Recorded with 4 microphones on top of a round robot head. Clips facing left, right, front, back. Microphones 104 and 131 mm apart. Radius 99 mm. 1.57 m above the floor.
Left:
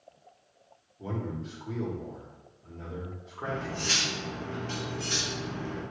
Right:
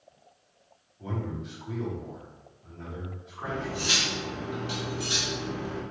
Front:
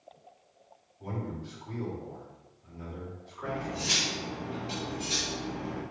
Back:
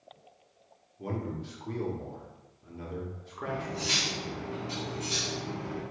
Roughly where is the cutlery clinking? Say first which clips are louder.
Right 1 dB, even; ahead right.